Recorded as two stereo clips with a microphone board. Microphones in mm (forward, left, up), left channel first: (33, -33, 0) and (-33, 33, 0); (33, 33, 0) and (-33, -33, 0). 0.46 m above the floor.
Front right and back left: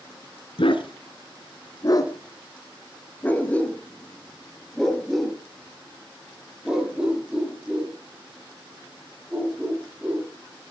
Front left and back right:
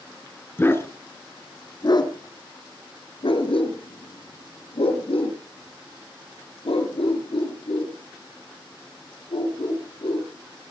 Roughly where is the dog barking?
Ahead right.